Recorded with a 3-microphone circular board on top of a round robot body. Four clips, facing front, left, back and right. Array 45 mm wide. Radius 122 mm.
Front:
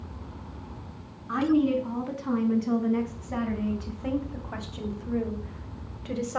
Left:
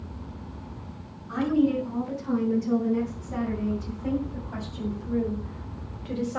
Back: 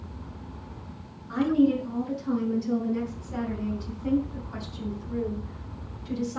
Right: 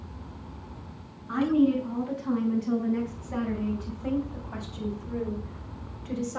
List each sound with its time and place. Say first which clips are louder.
1.3 s a woman speaking: even, back 1 dB; 20° right, 5 m; by 6.4 s 15° left, 2.5 m